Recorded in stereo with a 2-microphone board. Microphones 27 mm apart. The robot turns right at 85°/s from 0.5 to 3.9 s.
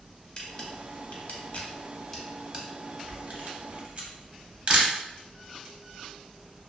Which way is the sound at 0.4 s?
30° left (ahead or behind).